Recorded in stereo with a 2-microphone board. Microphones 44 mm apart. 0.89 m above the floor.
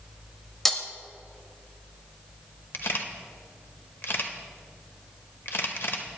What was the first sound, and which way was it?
Breaking glass, 10° left (ahead or behind).